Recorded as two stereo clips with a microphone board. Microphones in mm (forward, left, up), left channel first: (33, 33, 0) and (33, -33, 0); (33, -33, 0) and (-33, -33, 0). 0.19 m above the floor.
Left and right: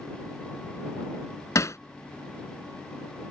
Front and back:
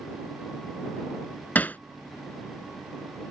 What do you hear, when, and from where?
1.6 s hammering: 60° left